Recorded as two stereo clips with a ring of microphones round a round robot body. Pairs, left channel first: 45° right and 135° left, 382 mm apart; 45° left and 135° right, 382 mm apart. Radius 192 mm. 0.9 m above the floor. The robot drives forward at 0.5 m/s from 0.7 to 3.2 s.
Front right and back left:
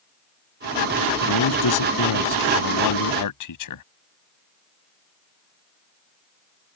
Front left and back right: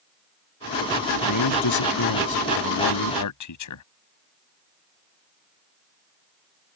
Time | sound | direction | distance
1.3 | a man speaking | straight ahead | ?